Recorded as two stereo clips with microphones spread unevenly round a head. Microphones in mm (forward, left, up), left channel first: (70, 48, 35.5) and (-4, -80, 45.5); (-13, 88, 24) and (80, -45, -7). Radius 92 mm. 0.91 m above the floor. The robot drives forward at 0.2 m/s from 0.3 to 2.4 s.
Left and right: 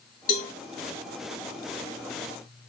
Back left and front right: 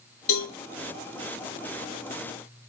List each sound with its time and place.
0.3 s a cowbell: 80° left, 2 m